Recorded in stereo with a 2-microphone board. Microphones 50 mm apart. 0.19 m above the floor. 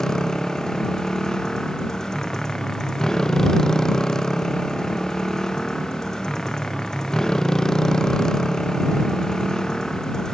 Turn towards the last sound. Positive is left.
turn(degrees=10)  # may be behind; listen again after turning